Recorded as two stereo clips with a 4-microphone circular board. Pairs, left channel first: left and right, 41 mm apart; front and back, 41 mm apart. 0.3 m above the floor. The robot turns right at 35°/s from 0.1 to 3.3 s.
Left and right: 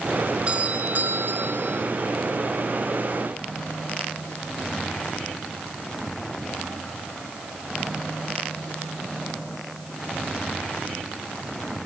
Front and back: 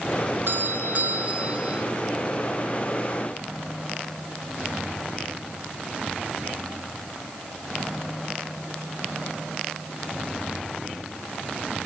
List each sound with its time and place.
0.5 s a doorbell: 155° right, 5 m; by 1.9 s 105° right, 5 m